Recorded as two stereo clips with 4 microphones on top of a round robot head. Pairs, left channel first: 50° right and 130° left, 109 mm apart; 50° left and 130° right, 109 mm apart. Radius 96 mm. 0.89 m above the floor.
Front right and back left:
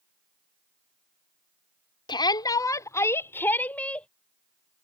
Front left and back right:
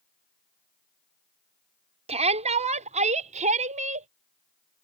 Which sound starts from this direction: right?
A shout, at 2.1 s.